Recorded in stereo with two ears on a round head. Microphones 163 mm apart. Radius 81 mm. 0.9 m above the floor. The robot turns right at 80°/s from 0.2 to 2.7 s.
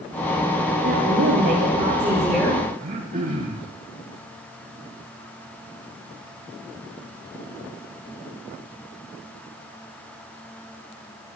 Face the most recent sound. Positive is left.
turn(degrees=-50)  # may be behind; listen again after turning